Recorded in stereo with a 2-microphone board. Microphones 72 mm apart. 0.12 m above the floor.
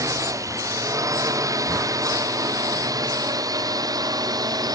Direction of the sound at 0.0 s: 50° right (ahead or behind).